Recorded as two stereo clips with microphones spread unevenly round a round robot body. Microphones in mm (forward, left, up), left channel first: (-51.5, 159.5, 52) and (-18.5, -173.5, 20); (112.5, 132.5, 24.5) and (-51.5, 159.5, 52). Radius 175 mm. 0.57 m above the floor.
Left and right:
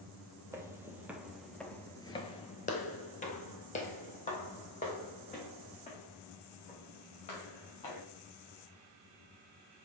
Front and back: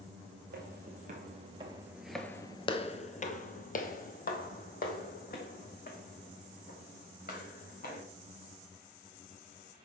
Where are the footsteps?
170° right, 1.1 m; by 8.0 s 25° left, 3.5 m.